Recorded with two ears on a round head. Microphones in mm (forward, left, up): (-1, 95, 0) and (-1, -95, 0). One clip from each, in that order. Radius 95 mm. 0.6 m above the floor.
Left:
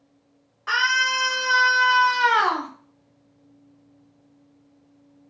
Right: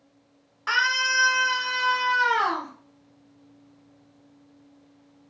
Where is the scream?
30° right (ahead or behind), 0.9 m; by 2.7 s 55° left (ahead or behind), 1.1 m.